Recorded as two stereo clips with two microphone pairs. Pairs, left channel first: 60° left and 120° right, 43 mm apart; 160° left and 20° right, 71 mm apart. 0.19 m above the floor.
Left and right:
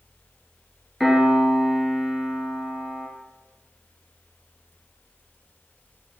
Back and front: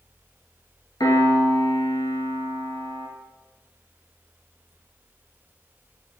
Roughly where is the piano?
Behind left.